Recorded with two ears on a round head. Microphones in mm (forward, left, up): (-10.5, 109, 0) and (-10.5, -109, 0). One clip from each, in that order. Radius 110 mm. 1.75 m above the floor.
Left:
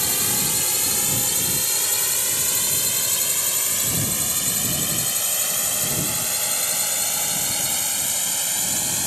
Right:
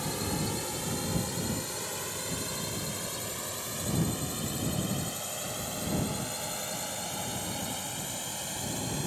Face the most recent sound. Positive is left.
turn(degrees=65)  # may be behind; listen again after turning